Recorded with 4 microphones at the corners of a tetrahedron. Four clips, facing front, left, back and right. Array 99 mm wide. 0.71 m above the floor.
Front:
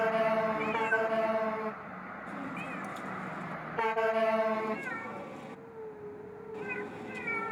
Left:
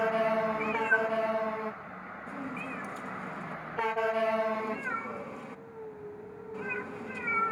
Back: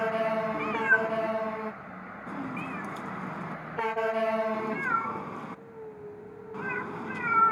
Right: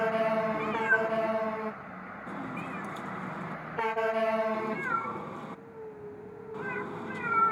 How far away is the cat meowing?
About 1.3 m.